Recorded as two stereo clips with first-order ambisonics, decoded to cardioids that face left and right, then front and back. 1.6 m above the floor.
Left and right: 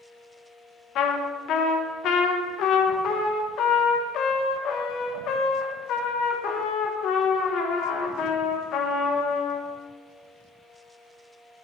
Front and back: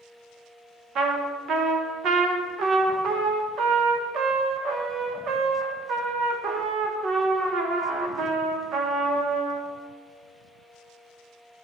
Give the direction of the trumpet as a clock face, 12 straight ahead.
8 o'clock.